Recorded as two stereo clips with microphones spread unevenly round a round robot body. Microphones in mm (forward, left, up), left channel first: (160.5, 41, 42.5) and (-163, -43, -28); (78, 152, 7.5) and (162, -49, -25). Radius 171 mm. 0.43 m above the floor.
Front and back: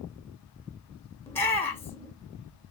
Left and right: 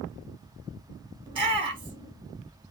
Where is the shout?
85° right, 0.9 m.